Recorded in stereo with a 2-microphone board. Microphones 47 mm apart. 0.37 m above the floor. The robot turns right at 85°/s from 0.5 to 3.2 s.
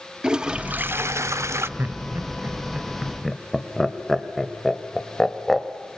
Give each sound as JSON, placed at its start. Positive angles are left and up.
{"t": 0.2, "sound": "a toilet flushing", "azimuth_deg": -160, "distance_m": 0.5}
{"t": 1.8, "sound": "laughter", "side_deg": -45, "distance_m": 1.6}